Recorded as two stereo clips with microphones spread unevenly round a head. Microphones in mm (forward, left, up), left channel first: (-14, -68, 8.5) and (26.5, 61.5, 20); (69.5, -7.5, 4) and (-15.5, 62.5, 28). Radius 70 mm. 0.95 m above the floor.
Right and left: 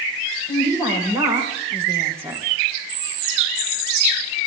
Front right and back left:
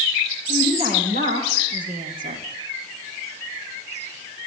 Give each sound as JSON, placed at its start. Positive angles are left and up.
{"t": 0.5, "sound": "a woman speaking", "azimuth_deg": 140, "distance_m": 5.0}